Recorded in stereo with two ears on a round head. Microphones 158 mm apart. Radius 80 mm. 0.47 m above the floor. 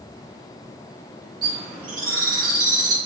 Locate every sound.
1.4 s a bird: 25° right (ahead or behind), 1.6 m